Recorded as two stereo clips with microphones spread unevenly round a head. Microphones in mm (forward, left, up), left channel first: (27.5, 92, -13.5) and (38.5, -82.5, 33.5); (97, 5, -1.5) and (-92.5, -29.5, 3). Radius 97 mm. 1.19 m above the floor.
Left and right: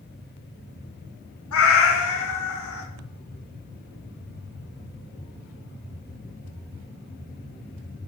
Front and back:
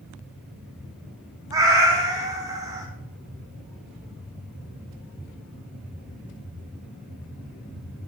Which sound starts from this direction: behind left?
A cat meowing, at 1.5 s.